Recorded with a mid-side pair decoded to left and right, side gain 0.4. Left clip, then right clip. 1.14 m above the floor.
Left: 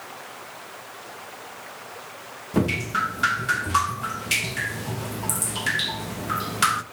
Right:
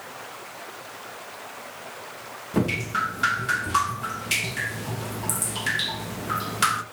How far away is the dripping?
About 1.0 m.